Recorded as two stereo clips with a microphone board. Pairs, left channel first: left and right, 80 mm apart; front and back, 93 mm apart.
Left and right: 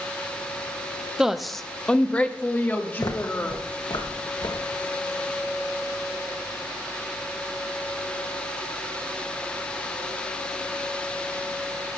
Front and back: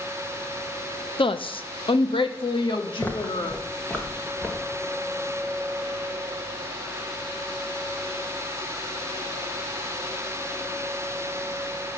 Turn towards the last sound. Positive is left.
turn(degrees=80)